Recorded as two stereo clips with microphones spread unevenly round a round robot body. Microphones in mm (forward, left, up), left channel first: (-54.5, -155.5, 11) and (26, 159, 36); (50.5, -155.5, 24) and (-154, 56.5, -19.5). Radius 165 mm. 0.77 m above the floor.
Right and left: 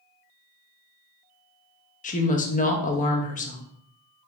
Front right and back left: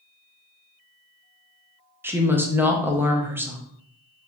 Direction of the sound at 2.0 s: 155° right.